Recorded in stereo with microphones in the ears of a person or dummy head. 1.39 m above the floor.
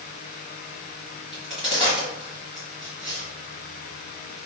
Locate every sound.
1.3 s a crack: 25° left (ahead or behind), 1.8 m